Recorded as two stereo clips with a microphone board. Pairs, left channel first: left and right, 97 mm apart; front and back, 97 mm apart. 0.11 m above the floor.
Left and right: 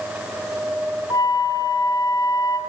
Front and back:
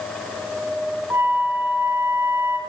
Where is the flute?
120° left, 3 m.